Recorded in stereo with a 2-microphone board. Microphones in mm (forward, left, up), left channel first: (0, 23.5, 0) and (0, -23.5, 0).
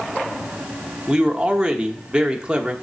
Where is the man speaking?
20° right (ahead or behind), 0.9 m.